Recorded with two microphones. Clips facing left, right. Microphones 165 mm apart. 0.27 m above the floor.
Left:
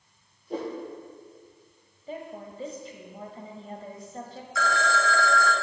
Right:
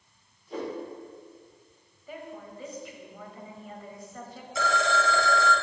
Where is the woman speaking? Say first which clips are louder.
Left 3 dB; 30° left (ahead or behind), 1.0 m.